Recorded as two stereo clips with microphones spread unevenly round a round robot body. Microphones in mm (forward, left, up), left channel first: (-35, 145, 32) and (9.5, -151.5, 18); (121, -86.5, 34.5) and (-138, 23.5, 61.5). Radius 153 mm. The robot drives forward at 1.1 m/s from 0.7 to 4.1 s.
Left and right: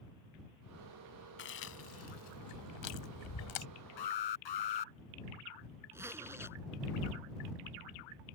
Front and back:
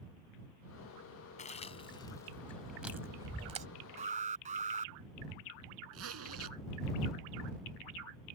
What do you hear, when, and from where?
1.4 s chewing: 45° left; by 3.7 s 90° left
4.0 s an alarm: 90° left
5.9 s a zipper: 165° right